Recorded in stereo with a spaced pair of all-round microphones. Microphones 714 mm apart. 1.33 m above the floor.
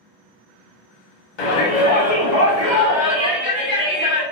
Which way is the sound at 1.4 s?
85° left.